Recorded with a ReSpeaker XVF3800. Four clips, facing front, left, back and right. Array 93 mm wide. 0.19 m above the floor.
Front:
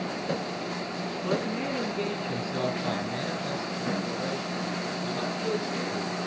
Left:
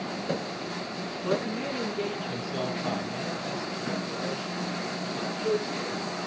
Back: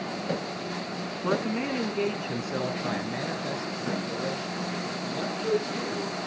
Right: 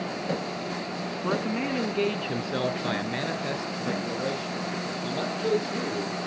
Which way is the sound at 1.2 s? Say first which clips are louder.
Right 1 dB, back 2 dB; 135° right.